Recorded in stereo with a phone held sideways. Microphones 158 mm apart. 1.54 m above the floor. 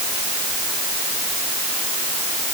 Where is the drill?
No drill in this recording.